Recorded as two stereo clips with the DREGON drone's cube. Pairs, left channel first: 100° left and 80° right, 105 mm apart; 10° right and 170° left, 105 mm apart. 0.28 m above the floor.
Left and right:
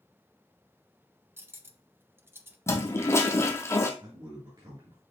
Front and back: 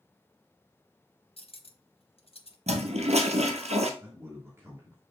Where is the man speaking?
125° right, 3.5 m.